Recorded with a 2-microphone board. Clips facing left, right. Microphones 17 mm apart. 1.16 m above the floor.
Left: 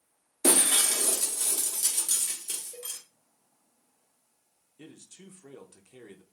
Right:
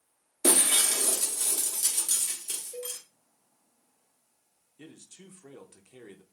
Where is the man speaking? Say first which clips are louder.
Even; 25° right (ahead or behind), 0.7 m.